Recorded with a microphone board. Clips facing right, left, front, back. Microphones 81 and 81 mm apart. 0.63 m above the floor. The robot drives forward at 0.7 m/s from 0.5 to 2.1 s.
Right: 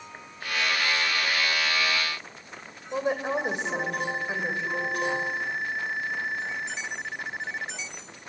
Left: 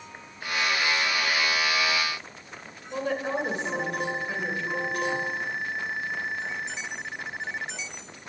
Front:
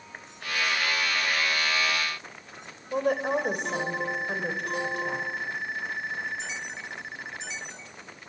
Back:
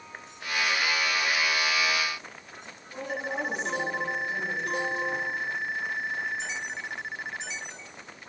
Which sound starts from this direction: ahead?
A woman speaking, at 2.9 s.